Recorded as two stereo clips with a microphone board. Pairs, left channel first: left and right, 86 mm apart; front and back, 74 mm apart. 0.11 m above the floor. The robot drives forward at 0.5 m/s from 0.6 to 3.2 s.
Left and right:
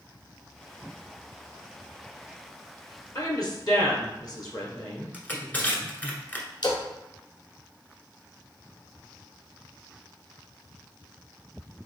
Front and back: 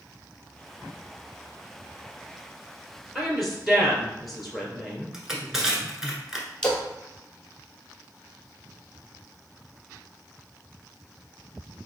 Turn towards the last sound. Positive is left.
turn(degrees=75)